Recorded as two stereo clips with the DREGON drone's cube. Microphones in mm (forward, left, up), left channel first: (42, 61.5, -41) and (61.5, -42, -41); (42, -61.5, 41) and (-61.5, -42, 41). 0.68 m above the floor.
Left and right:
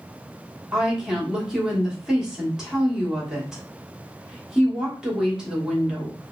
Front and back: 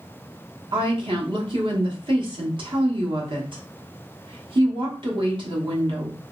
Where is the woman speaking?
160° right, 1.1 m.